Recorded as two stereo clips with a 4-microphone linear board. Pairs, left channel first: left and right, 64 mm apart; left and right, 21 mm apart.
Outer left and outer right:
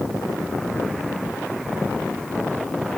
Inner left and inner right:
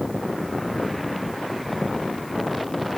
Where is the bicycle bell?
No bicycle bell in this recording.